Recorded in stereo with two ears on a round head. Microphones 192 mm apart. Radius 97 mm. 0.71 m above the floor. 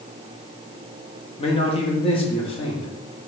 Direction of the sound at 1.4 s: 25° left (ahead or behind).